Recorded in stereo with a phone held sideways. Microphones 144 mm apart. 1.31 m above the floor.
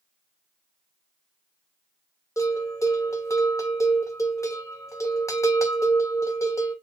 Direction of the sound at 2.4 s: 20° left (ahead or behind).